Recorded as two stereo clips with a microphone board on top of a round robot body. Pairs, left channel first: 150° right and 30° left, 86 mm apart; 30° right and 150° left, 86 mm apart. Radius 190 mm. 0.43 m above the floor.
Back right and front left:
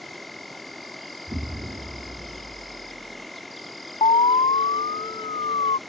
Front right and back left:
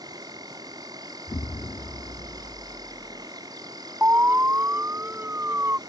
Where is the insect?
120° left.